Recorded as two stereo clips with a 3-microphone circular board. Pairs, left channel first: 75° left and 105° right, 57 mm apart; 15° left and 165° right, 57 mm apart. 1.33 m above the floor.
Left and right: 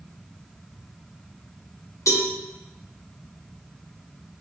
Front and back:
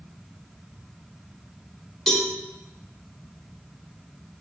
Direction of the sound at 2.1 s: 105° left.